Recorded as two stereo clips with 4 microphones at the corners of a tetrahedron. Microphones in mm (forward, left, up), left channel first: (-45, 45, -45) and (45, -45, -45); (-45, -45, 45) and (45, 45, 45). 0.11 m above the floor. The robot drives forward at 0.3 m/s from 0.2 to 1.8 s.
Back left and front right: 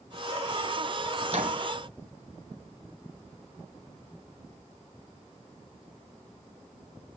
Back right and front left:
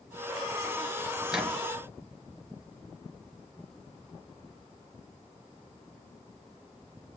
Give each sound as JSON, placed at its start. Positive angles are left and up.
{"t": 1.3, "sound": "a microwave", "azimuth_deg": -40, "distance_m": 2.5}